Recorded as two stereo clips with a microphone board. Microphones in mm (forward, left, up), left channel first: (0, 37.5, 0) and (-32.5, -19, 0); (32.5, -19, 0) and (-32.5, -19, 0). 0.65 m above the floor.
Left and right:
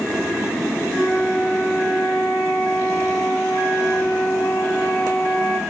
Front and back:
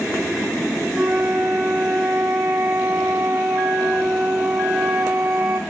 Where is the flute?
115° left, 2 m.